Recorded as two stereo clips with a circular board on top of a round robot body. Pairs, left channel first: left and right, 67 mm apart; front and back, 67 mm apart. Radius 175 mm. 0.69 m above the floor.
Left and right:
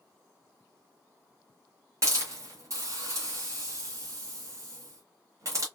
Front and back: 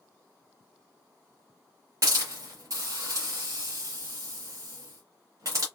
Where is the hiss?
135° right, 0.9 m.